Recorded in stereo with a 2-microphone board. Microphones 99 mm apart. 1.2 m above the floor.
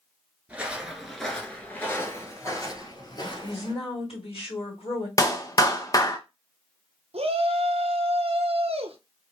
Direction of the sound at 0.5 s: 15° right (ahead or behind).